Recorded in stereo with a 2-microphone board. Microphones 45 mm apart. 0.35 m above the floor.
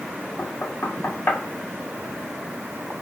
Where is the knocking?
45° left (ahead or behind), 2.5 m.